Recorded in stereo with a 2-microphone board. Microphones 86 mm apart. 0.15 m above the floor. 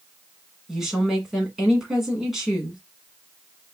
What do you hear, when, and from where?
0.7 s a woman speaking: 5° right (ahead or behind), 1.3 m